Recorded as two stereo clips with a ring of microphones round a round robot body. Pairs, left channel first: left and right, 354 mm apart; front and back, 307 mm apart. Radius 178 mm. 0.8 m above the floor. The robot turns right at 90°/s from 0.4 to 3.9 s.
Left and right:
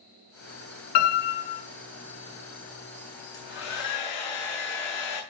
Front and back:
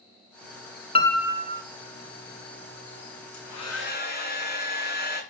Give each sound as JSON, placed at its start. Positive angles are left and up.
{"t": 0.9, "sound": "a piano", "azimuth_deg": 70, "distance_m": 1.7}
{"t": 3.3, "sound": "a hair dryer", "azimuth_deg": 10, "distance_m": 7.5}